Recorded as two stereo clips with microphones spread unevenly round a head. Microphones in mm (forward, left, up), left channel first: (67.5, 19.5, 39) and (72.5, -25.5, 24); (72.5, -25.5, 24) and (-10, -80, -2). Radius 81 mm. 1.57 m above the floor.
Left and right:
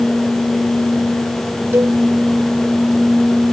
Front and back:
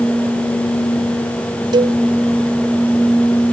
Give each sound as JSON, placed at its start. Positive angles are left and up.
{"t": 1.7, "sound": "a cowbell", "azimuth_deg": -130}